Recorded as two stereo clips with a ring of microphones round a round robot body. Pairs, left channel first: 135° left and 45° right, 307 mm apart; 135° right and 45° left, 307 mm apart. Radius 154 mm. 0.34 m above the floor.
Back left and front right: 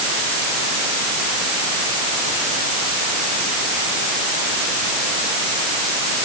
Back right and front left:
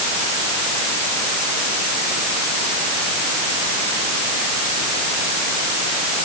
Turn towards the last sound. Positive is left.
No sound to turn to.